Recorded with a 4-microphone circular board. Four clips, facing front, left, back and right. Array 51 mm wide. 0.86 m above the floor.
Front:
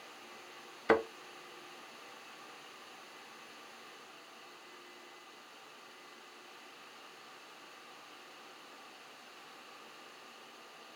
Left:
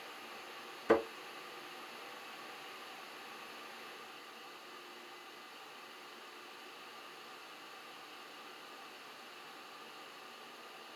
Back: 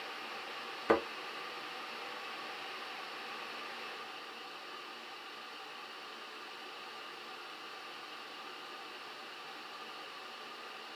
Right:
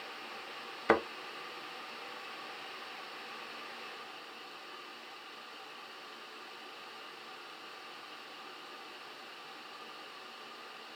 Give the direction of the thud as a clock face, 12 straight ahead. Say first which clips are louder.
Right 1 dB, front 1 dB; 3 o'clock.